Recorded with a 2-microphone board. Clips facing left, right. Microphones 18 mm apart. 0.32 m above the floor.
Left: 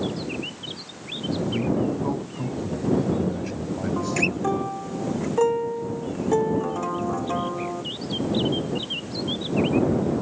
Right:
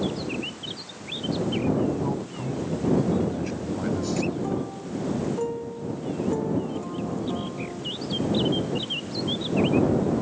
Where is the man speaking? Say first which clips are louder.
Even; 15° left (ahead or behind); by 4.6 s 15° right (ahead or behind).